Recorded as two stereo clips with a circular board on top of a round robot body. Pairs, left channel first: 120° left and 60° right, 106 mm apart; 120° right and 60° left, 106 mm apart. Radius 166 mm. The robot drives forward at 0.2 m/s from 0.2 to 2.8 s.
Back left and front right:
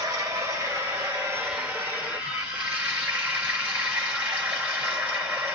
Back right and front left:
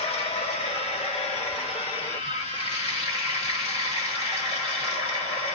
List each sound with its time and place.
0.0 s running water: 120° right, 1.5 m; by 5.5 s 135° right, 1.8 m